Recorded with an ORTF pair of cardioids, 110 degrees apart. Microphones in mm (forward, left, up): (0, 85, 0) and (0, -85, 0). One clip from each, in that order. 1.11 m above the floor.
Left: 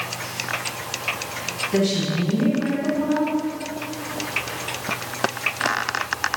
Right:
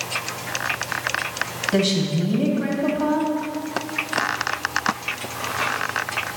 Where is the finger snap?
I don't hear a finger snap.